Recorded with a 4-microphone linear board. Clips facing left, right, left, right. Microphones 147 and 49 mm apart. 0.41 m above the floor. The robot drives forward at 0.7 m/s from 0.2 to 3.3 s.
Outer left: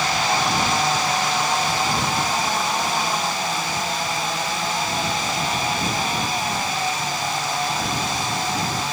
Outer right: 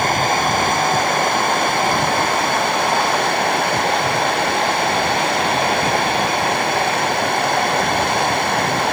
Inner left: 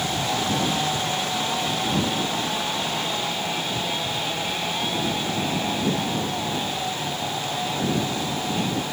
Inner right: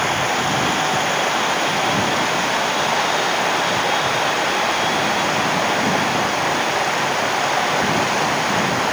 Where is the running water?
60° right (ahead or behind); by 8.9 s 75° right (ahead or behind).